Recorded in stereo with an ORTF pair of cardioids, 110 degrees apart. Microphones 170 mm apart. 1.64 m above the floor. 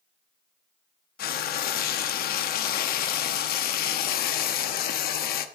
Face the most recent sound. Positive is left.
turn(degrees=65)